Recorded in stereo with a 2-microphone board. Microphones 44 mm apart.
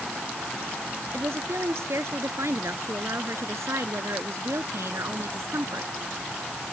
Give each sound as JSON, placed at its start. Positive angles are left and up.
{"t": 1.1, "sound": "a woman speaking", "side_deg": -75}